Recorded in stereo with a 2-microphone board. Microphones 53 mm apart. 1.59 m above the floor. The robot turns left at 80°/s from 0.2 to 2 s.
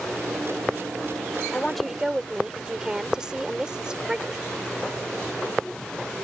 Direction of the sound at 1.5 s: 20° left.